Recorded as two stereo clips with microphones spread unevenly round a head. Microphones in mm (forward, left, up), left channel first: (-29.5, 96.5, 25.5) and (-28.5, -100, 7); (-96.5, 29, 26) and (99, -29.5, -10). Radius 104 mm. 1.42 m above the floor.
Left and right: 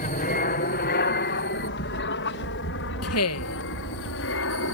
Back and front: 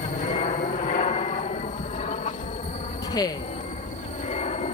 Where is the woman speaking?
90° left.